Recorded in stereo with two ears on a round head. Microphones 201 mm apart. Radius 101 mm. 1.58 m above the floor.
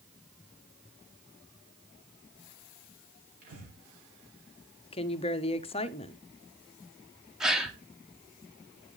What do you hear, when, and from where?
3.4 s breathing: 40° right (ahead or behind), 5.5 m
4.9 s a woman speaking: 25° left (ahead or behind), 0.7 m
7.4 s a gasp: centre (ahead or behind), 1.1 m